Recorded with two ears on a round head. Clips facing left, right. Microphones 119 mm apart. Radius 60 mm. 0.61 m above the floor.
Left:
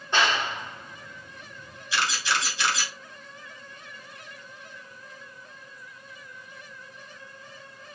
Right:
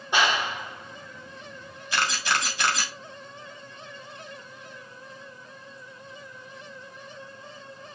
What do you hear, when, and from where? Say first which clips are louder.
0.1 s a clap: right 1 dB; 10° right (ahead or behind), 1.7 m
1.9 s a camera shutter: right 1 dB; 45° right (ahead or behind), 2 m